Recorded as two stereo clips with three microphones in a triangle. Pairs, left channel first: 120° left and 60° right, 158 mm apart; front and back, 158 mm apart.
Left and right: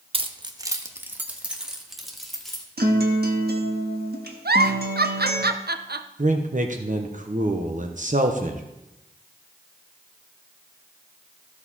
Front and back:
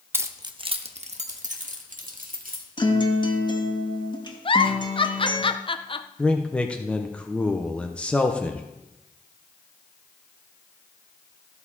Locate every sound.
0.1 s keys jangling: 105° right, 0.7 m; by 2.6 s 155° right, 2.0 m
2.8 s a guitar: 60° right, 1.4 m
4.5 s a giggle: 60° right, 0.5 m
6.2 s a man speaking: 85° right, 0.9 m